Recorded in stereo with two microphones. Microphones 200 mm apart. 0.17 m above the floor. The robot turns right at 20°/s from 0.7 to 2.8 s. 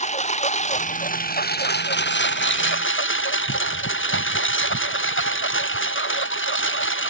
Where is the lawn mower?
35° left; by 7.1 s 75° left.